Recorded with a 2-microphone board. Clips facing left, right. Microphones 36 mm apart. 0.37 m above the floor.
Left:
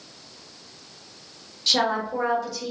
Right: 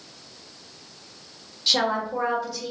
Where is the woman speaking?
5° right (ahead or behind), 0.8 m.